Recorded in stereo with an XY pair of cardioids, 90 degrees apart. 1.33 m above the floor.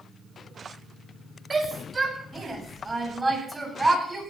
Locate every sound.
1.5 s a shout: 30° right, 7.5 m; by 4.2 s 25° right, 9 m